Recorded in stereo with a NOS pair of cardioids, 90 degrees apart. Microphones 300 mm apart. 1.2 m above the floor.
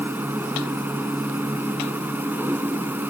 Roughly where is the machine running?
Ahead.